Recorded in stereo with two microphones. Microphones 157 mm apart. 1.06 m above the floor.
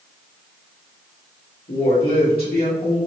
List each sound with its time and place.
1.7 s a woman speaking: 75° left (ahead or behind), 1.3 m